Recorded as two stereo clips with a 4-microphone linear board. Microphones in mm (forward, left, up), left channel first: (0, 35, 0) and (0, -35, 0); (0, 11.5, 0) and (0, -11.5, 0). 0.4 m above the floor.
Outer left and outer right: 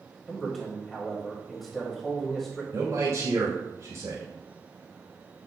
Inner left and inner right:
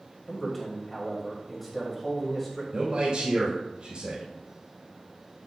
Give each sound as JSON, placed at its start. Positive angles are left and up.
{"t": 0.3, "sound": "a man speaking", "side_deg": 5, "distance_m": 1.8}
{"t": 2.7, "sound": "a man speaking", "side_deg": -55, "distance_m": 2.5}